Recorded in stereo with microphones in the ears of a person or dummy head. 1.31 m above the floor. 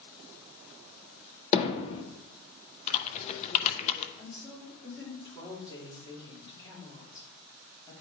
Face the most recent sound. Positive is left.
turn(degrees=25)  # may be behind; listen again after turning